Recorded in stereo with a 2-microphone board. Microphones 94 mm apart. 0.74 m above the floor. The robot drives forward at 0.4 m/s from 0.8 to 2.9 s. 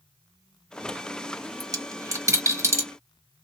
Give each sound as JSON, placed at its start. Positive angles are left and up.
{"t": 1.6, "sound": "a dropped coin", "side_deg": -40, "distance_m": 0.9}